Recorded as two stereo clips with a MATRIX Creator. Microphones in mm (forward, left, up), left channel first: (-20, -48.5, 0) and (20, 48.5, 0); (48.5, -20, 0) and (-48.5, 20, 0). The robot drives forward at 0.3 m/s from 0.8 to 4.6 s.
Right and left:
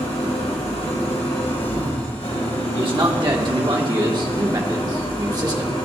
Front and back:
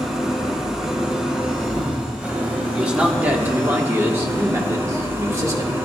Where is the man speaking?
80° left, 1.5 m; by 5.8 s 105° left, 1.6 m.